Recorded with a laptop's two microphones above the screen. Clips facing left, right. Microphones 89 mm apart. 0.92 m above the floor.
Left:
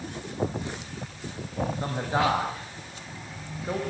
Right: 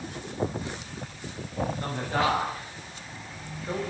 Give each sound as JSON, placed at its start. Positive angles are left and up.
{"t": 1.8, "sound": "a man speaking", "side_deg": 15, "distance_m": 6.0}